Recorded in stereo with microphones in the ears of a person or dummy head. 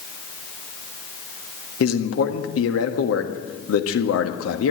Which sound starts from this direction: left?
A man speaking, at 1.8 s.